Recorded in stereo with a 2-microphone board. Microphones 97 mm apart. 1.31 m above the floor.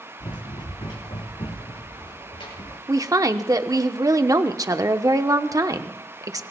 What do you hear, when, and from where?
0.2 s running footsteps: 55° left (ahead or behind), 3.5 m
2.9 s a woman speaking: 35° right (ahead or behind), 0.9 m